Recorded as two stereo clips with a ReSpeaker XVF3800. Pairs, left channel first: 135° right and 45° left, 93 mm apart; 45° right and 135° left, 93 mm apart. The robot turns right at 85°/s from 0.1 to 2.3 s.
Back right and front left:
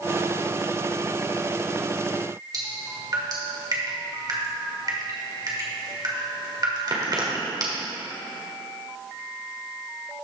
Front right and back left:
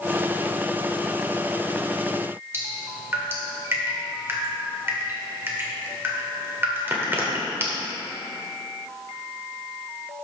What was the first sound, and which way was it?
Dripping, 75° left.